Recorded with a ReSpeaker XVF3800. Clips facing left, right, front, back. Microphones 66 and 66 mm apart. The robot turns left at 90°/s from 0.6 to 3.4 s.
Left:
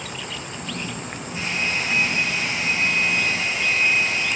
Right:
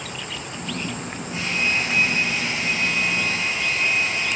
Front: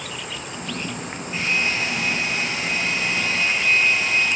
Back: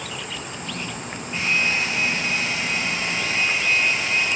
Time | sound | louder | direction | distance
1.3 | a hair dryer | right 2 dB, back 1 dB | 85° right | 6 m